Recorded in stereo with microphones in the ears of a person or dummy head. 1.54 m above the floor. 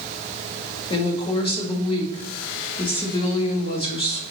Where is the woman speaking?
25° left (ahead or behind), 0.8 m.